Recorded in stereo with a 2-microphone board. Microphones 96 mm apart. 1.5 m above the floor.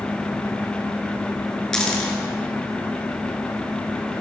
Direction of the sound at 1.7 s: 5° left (ahead or behind).